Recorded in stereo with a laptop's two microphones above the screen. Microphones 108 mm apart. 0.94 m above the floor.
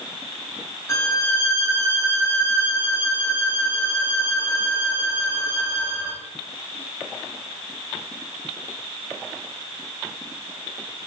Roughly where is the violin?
Left.